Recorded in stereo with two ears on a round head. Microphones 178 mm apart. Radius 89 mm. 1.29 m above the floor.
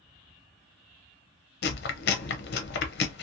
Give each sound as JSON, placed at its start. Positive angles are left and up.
{"t": 1.6, "sound": "chewing", "side_deg": 55, "distance_m": 0.6}